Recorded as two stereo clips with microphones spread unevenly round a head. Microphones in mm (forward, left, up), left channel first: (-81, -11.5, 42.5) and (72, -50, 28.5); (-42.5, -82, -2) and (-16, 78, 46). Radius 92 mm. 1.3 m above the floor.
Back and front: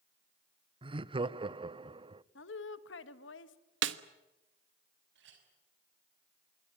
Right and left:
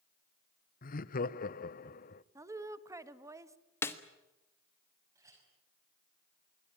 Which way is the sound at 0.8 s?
70° right.